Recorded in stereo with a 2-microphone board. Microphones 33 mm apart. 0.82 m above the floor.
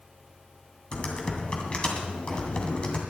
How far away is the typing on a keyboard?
About 2.5 m.